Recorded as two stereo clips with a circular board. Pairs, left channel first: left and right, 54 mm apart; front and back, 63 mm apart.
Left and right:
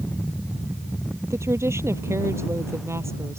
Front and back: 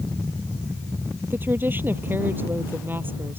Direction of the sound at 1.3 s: 125° right.